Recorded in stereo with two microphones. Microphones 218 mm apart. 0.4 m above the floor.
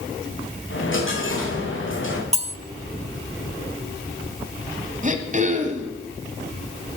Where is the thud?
I don't hear a thud.